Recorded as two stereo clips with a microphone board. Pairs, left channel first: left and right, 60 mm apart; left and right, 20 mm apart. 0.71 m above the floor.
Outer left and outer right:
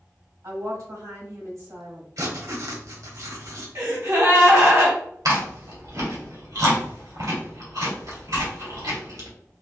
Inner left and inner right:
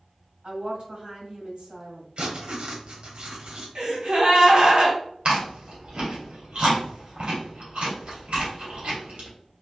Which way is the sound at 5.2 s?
80° right.